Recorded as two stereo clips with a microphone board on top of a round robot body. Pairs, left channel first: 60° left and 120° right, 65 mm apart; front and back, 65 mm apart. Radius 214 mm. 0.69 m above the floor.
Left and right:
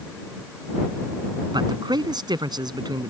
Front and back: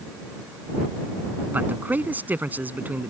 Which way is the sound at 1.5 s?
115° right.